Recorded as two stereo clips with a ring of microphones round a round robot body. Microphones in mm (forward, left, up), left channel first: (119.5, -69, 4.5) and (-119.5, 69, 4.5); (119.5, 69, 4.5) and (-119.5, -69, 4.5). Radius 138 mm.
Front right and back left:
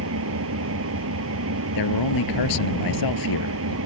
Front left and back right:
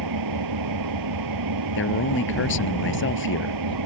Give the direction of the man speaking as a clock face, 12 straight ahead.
1 o'clock.